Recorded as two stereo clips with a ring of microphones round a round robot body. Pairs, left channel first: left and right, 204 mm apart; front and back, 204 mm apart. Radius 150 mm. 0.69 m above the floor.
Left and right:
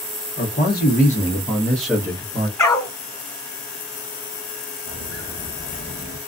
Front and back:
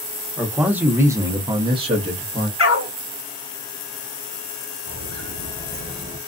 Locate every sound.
0.4 s a man speaking: 95° left, 1.3 m; by 2.5 s 135° right, 1.0 m
2.6 s a dog barking: 15° left, 1.3 m
4.9 s footsteps: 170° right, 1.1 m; by 6.2 s 115° left, 0.9 m